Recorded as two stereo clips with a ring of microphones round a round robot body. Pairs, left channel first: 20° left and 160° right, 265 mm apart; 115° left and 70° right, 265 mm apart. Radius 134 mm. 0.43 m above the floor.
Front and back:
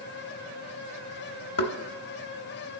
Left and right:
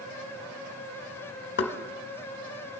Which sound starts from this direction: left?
Knocking, at 1.6 s.